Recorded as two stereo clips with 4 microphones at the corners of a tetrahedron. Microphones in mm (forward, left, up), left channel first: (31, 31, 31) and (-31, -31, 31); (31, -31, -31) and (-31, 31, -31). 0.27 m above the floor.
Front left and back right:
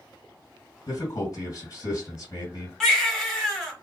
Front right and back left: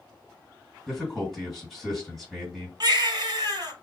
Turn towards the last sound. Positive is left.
turn(degrees=135)